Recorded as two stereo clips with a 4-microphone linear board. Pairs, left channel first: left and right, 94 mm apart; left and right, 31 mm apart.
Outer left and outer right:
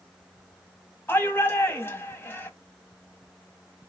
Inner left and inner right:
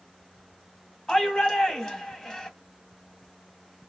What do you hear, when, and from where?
1.1 s a shout: 25° left (ahead or behind), 1.3 m